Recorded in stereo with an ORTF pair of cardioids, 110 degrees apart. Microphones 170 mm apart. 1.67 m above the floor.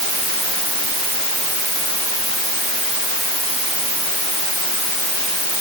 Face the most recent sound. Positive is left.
No sound to turn to.